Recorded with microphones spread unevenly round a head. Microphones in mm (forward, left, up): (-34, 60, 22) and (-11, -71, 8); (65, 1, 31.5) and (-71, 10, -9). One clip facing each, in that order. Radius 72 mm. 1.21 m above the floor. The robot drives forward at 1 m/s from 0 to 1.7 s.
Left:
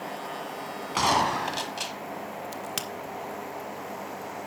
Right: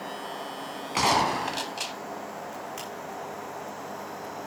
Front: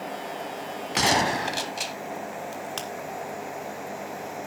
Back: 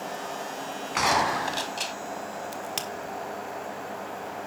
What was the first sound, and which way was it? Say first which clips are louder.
A gunshot: even, front 1 dB; 5° left.